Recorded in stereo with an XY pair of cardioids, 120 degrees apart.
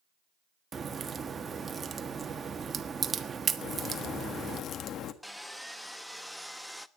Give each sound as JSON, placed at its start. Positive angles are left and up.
{"t": 0.7, "sound": "a crack", "azimuth_deg": -30, "distance_m": 1.3}
{"t": 3.6, "sound": "a crack", "azimuth_deg": 55, "distance_m": 1.5}
{"t": 5.2, "sound": "sawing", "azimuth_deg": 5, "distance_m": 0.8}